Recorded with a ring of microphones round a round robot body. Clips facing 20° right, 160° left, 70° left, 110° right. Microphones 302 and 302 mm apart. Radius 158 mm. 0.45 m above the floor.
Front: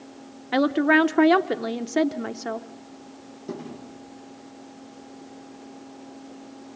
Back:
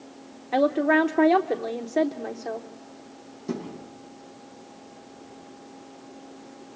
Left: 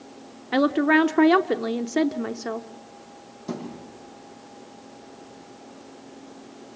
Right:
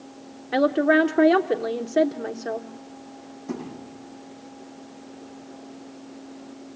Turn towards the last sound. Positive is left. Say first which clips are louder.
# back 3 dB, even
turn(degrees=80)